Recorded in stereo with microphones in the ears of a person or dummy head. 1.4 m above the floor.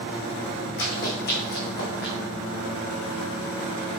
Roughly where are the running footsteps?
Left.